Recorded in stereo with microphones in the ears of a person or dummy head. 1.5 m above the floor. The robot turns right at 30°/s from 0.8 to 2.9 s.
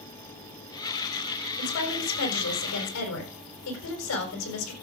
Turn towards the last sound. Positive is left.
turn(degrees=90)